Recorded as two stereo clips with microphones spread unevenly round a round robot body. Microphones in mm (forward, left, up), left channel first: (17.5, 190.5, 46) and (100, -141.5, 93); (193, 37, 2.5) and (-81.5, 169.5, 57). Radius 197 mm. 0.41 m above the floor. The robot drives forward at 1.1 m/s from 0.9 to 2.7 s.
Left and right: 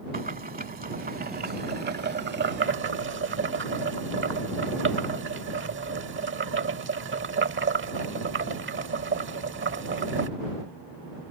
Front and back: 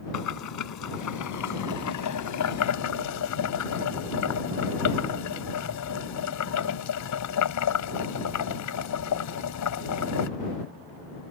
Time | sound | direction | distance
0.1 | boiling | 10° right | ?